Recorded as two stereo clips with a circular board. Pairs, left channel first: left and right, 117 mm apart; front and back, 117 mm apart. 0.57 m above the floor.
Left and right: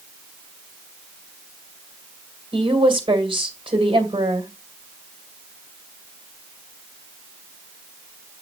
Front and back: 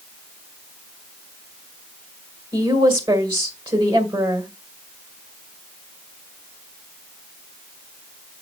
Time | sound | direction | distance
2.5 | a woman speaking | 130° right | 2 m